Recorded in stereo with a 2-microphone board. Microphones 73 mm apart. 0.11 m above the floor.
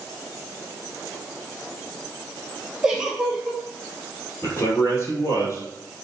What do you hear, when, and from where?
2.8 s a giggle: 10° right (ahead or behind), 1.2 m
4.4 s a man speaking: 40° left (ahead or behind), 2.5 m